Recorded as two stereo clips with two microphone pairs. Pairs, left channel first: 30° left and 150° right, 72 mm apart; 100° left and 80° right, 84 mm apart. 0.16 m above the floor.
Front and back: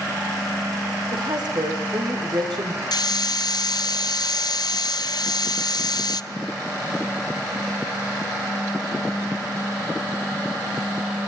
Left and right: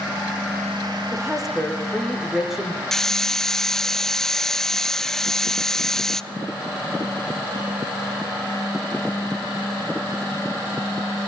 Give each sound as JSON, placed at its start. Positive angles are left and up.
{"t": 1.1, "sound": "a woman speaking", "azimuth_deg": -165, "distance_m": 7.0}
{"t": 2.9, "sound": "a hiss", "azimuth_deg": 20, "distance_m": 0.6}